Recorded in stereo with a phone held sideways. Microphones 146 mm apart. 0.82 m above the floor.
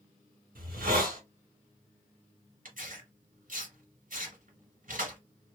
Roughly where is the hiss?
Right.